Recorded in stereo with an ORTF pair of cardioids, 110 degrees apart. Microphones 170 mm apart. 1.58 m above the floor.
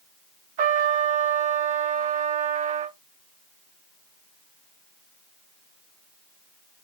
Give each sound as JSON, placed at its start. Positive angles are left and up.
{"t": 0.6, "sound": "a trumpet", "azimuth_deg": -45, "distance_m": 0.9}